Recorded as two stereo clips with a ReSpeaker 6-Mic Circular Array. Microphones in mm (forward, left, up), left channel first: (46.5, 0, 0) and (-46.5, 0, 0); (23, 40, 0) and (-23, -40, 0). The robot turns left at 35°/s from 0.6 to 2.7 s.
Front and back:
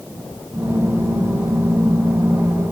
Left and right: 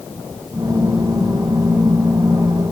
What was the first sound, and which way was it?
Only background noise.